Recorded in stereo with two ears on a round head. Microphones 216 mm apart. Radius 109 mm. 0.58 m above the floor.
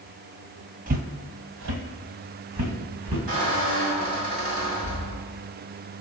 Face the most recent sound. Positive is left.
turn(degrees=-35)  # may be behind; listen again after turning